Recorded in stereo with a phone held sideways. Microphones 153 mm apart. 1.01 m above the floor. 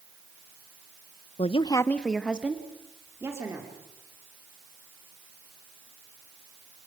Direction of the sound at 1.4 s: 45° left (ahead or behind).